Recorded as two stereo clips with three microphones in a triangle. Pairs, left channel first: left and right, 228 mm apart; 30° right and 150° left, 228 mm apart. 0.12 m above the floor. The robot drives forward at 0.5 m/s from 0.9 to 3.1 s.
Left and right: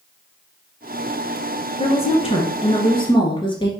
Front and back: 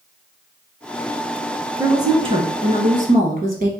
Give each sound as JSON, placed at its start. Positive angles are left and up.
{"t": 1.8, "sound": "a woman speaking", "azimuth_deg": 95, "distance_m": 1.1}